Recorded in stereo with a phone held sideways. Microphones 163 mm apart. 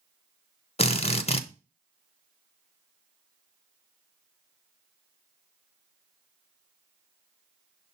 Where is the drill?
40° left (ahead or behind), 0.6 m.